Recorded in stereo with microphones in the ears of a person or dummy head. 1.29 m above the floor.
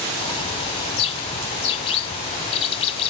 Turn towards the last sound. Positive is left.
turn(degrees=30)  # may be behind; listen again after turning